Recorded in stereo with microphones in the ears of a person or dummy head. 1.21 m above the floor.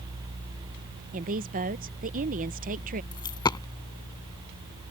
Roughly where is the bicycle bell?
I don't hear a bicycle bell.